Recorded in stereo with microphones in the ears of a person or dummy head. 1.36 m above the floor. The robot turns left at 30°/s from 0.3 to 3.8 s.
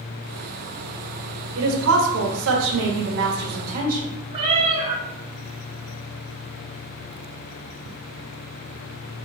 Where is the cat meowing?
35° right (ahead or behind), 1.1 m.